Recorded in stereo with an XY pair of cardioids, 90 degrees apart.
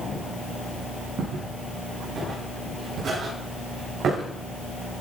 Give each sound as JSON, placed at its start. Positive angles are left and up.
{"t": 1.2, "sound": "footsteps", "azimuth_deg": -65, "distance_m": 7.5}